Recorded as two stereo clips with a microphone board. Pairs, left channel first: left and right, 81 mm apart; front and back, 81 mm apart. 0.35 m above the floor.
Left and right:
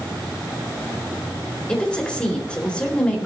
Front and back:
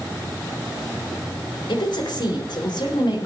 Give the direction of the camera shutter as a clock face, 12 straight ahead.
I don't hear a camera shutter.